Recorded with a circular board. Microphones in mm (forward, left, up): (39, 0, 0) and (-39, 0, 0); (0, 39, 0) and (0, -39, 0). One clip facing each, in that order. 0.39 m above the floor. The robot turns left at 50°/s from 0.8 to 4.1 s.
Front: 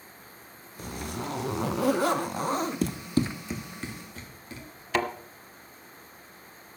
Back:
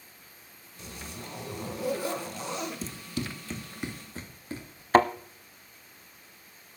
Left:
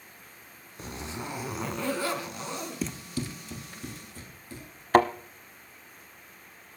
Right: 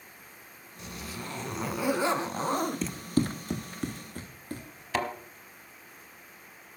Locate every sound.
0.8 s a zipper: 40° left, 0.7 m; by 2.9 s 60° right, 0.7 m
2.8 s running footsteps: 5° left, 0.7 m; by 4.8 s 125° right, 3.5 m
4.9 s a thud: 130° left, 0.9 m